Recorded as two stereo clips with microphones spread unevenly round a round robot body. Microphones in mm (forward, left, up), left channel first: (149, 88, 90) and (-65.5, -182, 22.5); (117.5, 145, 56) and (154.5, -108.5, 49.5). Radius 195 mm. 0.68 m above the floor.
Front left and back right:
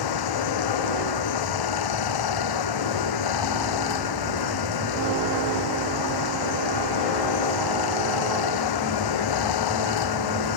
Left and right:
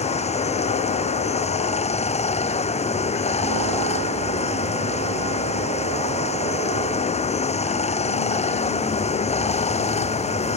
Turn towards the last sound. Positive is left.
turn(degrees=35)